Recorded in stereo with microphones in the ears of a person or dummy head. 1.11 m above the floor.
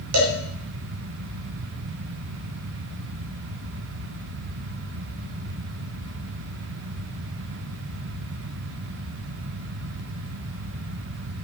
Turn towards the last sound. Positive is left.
turn(degrees=-80)